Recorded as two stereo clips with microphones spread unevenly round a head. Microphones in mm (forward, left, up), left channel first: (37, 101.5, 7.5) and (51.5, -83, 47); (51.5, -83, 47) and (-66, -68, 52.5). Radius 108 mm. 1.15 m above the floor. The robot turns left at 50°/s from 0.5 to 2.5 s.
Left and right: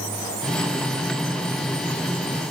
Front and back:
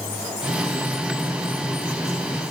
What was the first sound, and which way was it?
Only background noise.